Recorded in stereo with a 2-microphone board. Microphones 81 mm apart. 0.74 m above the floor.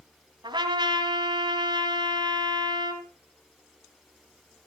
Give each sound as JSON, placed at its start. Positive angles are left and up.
{"t": 0.4, "sound": "a trumpet", "side_deg": -75, "distance_m": 2.5}